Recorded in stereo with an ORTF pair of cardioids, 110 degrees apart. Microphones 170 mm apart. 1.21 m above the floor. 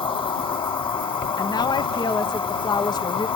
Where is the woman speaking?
25° left, 1.0 m.